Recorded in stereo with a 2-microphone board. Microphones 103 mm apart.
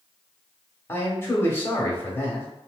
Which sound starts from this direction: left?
A man speaking, at 0.9 s.